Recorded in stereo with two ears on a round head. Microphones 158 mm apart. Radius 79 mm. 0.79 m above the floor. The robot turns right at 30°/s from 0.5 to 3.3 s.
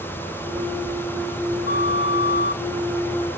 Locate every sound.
1.7 s a flute: 60° left (ahead or behind), 0.9 m; by 2.6 s 55° left (ahead or behind), 0.9 m